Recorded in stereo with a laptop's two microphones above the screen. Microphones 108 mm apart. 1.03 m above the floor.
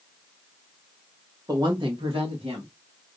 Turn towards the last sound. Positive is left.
turn(degrees=-60)  # may be behind; listen again after turning